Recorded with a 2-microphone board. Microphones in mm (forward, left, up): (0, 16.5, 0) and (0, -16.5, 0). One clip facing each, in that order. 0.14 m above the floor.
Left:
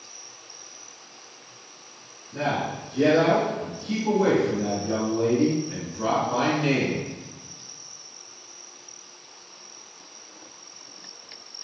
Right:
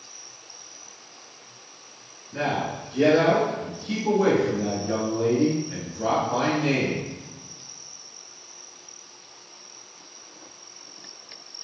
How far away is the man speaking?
About 1.9 m.